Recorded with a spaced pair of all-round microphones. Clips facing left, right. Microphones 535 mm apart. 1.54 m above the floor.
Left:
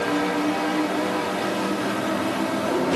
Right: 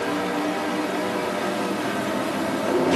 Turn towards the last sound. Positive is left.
No sound to turn to.